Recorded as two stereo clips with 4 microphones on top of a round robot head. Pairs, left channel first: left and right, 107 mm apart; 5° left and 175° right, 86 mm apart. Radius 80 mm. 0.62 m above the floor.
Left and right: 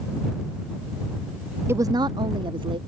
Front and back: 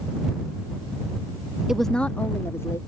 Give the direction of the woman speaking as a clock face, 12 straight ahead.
3 o'clock.